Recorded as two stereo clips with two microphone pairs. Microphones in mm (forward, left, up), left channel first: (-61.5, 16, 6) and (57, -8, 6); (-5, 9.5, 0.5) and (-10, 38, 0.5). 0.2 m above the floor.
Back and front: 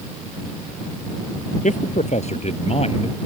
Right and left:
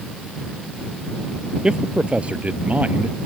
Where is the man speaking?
160° left; by 3.2 s 130° left.